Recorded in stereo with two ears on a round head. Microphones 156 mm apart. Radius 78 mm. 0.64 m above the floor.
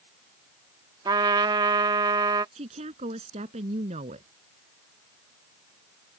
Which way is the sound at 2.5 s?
40° right (ahead or behind).